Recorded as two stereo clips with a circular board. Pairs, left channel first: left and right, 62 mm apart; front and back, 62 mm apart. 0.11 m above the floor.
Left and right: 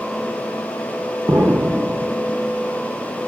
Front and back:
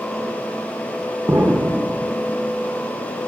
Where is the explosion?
135° right, 0.6 m.